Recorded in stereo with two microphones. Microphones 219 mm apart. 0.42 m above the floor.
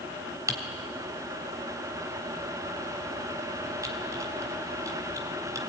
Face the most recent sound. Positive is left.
turn(degrees=-15)  # may be behind; listen again after turning